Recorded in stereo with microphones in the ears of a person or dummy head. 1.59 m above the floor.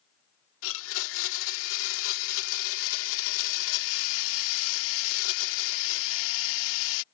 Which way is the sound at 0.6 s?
75° left (ahead or behind).